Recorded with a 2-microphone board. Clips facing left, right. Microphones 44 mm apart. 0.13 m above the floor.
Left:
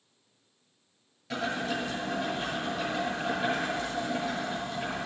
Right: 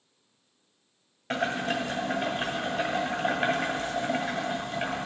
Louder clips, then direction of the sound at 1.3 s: Right 3 dB; 55° right (ahead or behind).